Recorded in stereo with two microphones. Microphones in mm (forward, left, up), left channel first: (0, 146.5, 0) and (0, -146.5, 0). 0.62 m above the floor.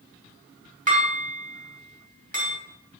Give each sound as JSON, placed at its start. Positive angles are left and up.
{"t": 0.9, "sound": "dishes clattering", "side_deg": -25, "distance_m": 3.0}